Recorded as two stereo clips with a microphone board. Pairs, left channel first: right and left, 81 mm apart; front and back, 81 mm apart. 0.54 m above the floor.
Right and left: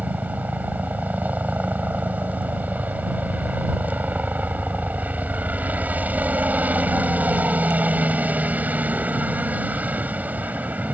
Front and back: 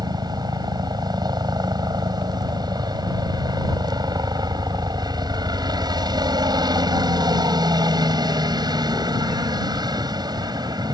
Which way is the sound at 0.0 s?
160° left.